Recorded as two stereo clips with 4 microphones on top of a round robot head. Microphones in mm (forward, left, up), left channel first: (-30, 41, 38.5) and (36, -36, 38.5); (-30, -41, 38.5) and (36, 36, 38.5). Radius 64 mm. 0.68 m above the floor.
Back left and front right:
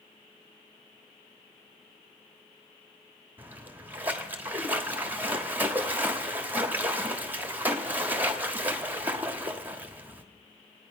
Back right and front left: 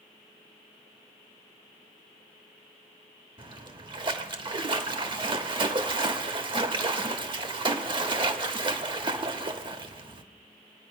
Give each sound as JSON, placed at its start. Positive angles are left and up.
{"t": 3.4, "sound": "a splash", "azimuth_deg": 20, "distance_m": 1.2}